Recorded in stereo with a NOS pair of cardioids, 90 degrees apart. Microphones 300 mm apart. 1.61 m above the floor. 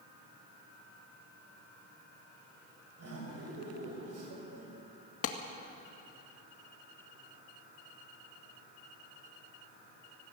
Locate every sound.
3.0 s laughter: 55° right, 7 m
5.2 s a clap: 50° left, 2.0 m